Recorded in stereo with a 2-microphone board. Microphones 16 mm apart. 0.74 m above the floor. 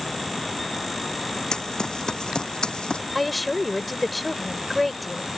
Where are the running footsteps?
40° left (ahead or behind); by 3.0 s 50° left (ahead or behind).